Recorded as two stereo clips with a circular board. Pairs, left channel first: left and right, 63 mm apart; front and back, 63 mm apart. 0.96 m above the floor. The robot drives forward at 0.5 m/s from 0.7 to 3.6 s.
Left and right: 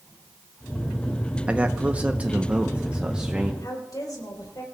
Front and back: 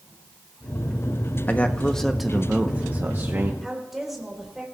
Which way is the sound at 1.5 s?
35° right.